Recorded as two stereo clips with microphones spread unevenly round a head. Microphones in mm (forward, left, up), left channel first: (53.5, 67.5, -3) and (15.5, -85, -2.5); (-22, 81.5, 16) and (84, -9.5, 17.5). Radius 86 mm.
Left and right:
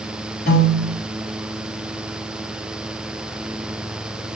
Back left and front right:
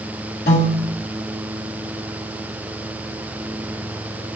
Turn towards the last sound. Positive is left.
turn(degrees=115)